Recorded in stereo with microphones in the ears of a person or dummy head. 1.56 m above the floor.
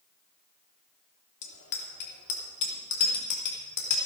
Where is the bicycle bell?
60° left (ahead or behind), 3 m; by 4.0 s 80° left, 4 m.